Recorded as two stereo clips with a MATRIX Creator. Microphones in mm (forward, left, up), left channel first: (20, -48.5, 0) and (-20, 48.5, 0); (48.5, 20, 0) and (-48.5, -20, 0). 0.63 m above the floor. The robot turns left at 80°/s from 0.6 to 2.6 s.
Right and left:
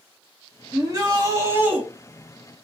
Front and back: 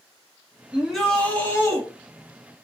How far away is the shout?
About 1.1 m.